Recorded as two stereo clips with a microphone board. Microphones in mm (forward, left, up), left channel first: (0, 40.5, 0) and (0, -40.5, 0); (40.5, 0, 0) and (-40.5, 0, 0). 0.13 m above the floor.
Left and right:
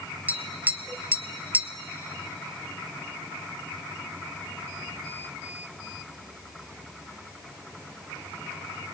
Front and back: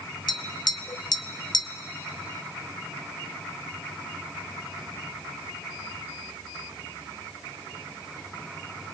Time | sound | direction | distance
0.3 | tapping | 20° right | 0.7 m